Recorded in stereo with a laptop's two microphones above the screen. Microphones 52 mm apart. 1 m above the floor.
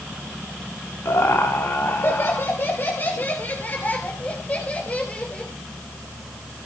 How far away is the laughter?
About 2 m.